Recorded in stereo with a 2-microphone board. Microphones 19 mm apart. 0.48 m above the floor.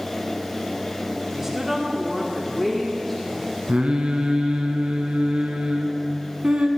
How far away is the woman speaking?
About 1.1 m.